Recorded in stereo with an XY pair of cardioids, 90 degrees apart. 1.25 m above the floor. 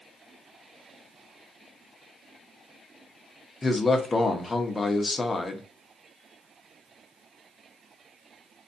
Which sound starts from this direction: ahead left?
A man speaking, at 3.6 s.